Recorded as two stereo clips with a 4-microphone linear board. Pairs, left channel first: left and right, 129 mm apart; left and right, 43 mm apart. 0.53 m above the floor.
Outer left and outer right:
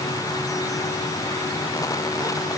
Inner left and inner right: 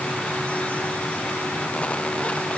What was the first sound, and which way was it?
Only background noise.